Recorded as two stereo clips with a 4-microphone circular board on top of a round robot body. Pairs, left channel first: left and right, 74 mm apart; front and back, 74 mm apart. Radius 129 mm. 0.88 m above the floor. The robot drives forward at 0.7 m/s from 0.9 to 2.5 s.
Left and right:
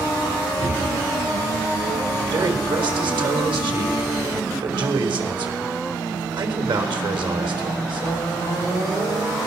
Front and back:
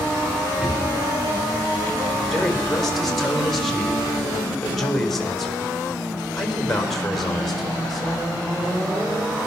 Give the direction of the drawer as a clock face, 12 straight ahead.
3 o'clock.